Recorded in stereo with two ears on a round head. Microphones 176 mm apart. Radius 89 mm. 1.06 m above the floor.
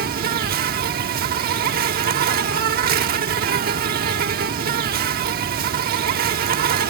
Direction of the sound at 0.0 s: 50° right (ahead or behind).